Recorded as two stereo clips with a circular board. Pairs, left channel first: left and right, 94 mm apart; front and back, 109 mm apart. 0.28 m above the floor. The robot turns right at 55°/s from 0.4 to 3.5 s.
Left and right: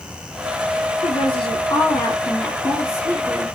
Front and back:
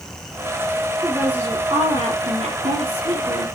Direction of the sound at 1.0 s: 95° left.